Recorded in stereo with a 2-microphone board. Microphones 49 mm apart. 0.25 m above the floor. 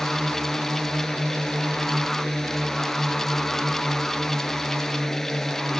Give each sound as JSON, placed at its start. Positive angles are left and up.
{"t": 0.0, "sound": "a drone", "side_deg": 10}